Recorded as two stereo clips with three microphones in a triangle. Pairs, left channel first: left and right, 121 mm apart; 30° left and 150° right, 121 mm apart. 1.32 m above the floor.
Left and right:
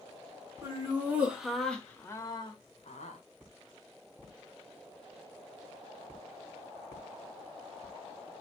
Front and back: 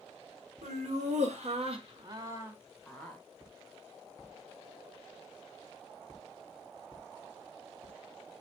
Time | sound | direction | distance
0.6 | laughter | 160° right | 1.3 m